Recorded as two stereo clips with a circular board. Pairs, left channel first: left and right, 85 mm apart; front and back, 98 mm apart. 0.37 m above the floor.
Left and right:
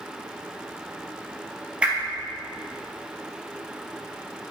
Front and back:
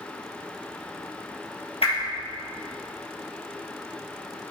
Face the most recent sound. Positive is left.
turn(degrees=-15)